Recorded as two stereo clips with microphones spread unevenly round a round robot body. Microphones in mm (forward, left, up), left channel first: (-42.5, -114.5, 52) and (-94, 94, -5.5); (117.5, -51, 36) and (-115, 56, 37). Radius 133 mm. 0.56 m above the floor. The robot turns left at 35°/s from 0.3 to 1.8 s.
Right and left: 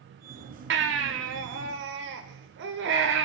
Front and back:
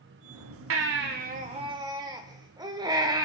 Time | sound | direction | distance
0.7 | a baby crying | 120° left | 1.3 m